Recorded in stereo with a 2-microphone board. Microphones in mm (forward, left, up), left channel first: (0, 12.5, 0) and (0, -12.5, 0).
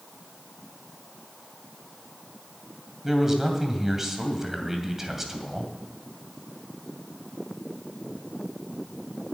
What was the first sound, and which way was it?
A man speaking, 15° right (ahead or behind).